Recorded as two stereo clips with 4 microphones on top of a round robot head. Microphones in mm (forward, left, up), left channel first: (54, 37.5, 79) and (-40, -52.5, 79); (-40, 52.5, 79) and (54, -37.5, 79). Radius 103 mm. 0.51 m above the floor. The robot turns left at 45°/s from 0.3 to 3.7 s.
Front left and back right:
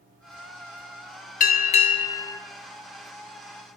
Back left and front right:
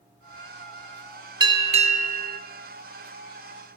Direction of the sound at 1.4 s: 20° left.